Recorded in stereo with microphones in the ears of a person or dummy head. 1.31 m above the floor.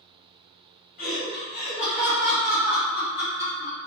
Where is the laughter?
45° left (ahead or behind), 1.4 m; by 3.8 s 55° left (ahead or behind), 1.8 m.